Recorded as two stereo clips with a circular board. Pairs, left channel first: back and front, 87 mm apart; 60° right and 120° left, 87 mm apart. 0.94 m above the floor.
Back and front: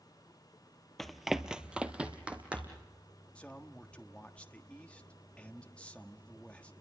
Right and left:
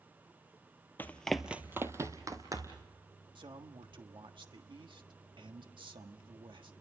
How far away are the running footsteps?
About 1.0 m.